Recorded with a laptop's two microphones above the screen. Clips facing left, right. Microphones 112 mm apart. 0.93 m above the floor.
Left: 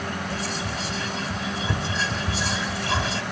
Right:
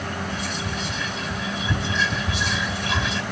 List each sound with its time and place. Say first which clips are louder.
0.3 s whispering: even; 40° left (ahead or behind), 3.5 m